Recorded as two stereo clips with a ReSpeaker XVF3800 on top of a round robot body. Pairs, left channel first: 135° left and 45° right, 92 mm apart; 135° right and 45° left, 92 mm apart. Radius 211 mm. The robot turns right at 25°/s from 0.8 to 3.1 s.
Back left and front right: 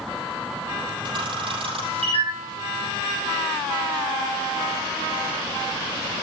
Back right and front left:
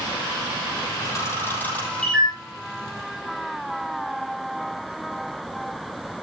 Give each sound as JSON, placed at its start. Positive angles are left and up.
{"t": 1.1, "sound": "a camera shutter", "azimuth_deg": -80, "distance_m": 4.5}